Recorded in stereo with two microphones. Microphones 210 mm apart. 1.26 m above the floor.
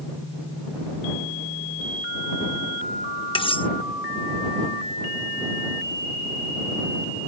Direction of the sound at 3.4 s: 25° left (ahead or behind).